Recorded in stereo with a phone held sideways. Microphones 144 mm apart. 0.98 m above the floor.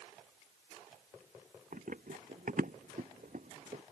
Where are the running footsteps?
70° right (ahead or behind); by 3.8 s 55° right (ahead or behind).